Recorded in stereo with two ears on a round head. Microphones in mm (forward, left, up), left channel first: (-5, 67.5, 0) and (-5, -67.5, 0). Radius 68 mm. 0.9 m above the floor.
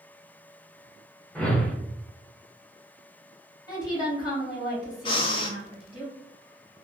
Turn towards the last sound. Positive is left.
turn(degrees=35)  # may be behind; listen again after turning